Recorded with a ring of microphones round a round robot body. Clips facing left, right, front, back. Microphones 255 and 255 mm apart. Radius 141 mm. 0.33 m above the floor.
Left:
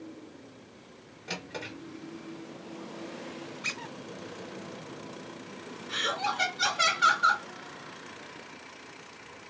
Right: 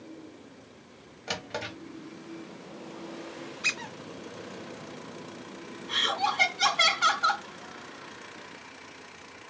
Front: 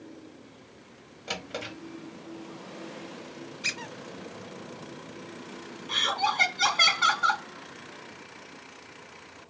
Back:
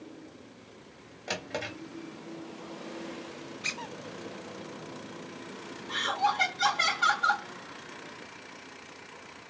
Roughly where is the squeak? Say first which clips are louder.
Even, front 1 dB; ahead right.